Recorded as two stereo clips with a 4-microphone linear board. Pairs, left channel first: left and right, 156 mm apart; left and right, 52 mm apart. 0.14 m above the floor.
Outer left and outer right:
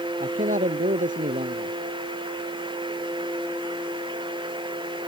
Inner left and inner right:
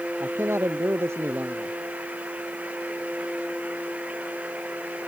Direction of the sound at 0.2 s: 55° right (ahead or behind).